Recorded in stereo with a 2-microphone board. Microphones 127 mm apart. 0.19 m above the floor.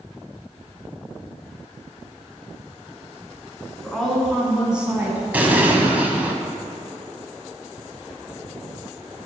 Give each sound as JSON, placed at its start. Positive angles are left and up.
{"t": 3.8, "sound": "a woman speaking", "side_deg": 5, "distance_m": 2.5}
{"t": 5.3, "sound": "an explosion", "side_deg": -15, "distance_m": 0.8}